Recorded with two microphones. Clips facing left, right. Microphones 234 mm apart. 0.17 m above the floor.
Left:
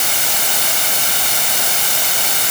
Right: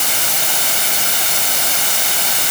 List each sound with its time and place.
Only background noise.